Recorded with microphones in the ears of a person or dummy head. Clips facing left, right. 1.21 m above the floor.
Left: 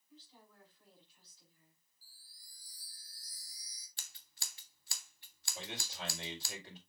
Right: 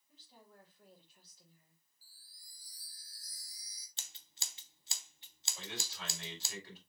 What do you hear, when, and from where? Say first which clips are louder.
0.1 s a woman speaking: even; 45° right (ahead or behind), 4.5 m
2.0 s a chime: even; 65° right (ahead or behind), 2.5 m
4.0 s scissors: right 2 dB; 20° right (ahead or behind), 0.6 m
5.5 s a man speaking: left 1 dB; 20° left (ahead or behind), 4 m